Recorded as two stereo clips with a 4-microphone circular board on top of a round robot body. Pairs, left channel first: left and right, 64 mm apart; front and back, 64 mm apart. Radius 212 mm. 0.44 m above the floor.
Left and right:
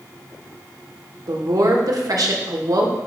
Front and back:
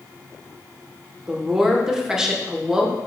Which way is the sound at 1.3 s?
100° right.